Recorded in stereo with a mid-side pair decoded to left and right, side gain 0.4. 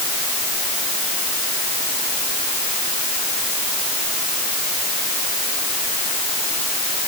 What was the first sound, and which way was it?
Only background noise.